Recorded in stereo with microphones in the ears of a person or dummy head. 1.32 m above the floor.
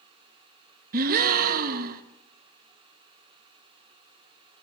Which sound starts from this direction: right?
A gasp, at 0.9 s.